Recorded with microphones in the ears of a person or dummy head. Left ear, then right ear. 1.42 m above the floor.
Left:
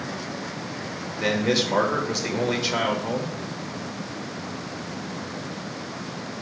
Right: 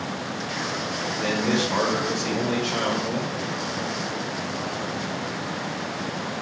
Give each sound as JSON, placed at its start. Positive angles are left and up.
{"t": 1.2, "sound": "a man speaking", "side_deg": 30, "distance_m": 1.1}